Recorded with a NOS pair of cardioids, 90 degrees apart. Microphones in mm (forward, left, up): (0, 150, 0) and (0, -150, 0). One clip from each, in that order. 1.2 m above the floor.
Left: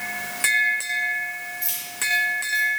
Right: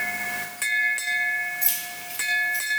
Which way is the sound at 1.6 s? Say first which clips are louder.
Left 4 dB; 45° right.